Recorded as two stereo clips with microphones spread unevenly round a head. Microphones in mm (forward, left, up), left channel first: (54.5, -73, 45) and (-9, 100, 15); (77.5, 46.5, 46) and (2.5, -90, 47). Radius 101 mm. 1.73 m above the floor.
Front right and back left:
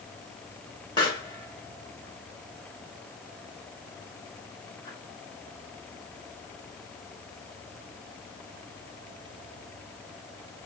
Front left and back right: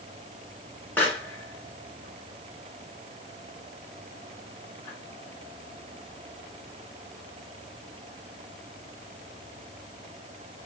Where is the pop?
15° right, 2.5 m.